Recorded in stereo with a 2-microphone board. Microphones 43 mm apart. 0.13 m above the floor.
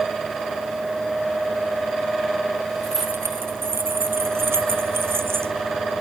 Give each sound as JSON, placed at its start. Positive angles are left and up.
{"t": 2.8, "sound": "keys jangling", "side_deg": -60}